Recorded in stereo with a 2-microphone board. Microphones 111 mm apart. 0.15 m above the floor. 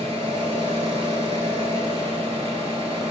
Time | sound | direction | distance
0.0 | an engine running | 65° right (ahead or behind) | 0.7 m